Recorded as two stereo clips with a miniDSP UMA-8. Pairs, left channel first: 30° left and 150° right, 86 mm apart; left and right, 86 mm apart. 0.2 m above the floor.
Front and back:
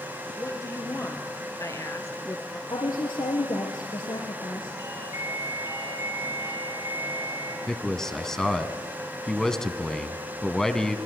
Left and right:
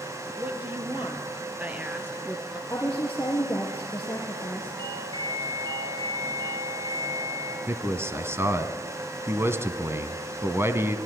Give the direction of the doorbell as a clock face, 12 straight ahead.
3 o'clock.